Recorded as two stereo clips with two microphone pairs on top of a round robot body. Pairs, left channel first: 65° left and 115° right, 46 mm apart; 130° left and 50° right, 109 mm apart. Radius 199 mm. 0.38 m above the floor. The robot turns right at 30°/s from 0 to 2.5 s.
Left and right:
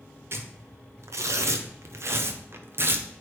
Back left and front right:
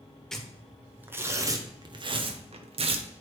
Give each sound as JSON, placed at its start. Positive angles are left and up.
{"t": 0.3, "sound": "tearing paper", "azimuth_deg": -145, "distance_m": 0.9}